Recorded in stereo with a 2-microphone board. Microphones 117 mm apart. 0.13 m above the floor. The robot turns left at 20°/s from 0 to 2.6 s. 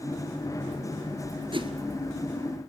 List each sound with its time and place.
1.5 s a whoosh: 45° right (ahead or behind), 1.3 m; by 1.7 s 50° right (ahead or behind), 1.3 m